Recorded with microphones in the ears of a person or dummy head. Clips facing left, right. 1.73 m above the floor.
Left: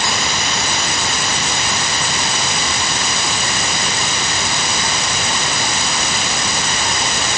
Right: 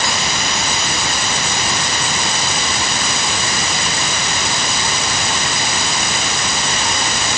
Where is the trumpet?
I don't hear a trumpet.